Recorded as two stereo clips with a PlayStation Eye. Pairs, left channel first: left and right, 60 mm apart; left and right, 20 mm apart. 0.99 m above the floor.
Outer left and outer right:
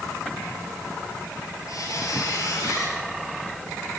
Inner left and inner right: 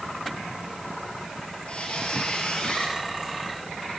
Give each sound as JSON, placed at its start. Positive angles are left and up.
{"t": 1.7, "sound": "a squeak", "side_deg": 70, "distance_m": 3.0}